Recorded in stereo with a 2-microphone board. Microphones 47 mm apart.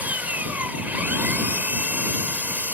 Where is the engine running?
35° right (ahead or behind).